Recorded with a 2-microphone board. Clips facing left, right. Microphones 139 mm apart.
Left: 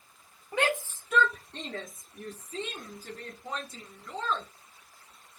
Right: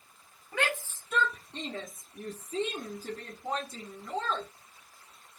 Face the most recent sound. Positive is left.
turn(degrees=-60)  # may be behind; listen again after turning